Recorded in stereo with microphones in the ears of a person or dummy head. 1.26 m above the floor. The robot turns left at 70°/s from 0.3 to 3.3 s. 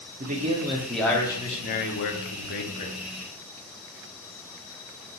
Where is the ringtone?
I don't hear a ringtone.